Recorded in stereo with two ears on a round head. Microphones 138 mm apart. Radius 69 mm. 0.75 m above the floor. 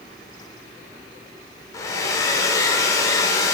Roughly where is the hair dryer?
Left.